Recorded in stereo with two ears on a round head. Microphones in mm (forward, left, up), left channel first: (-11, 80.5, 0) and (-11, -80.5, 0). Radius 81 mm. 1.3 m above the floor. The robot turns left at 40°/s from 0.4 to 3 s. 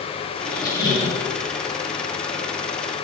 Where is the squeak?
160° left, 0.9 m; by 1.2 s 130° left, 0.9 m.